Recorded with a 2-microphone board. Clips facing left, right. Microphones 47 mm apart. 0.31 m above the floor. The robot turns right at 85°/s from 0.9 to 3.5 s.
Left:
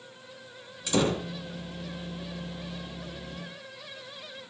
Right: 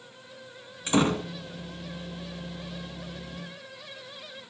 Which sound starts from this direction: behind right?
A door slam, at 0.9 s.